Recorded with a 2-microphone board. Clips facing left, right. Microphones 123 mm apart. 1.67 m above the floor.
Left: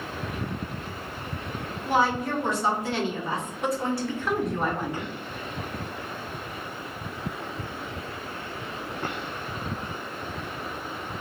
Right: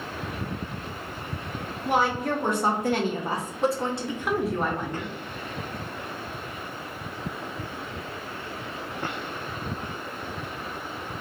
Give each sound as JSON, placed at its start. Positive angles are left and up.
{"t": 1.9, "sound": "a woman speaking", "side_deg": -70, "distance_m": 1.5}